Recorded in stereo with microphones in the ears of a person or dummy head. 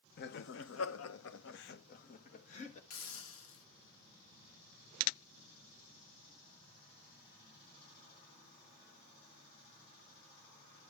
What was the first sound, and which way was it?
Laughter, 45° left (ahead or behind).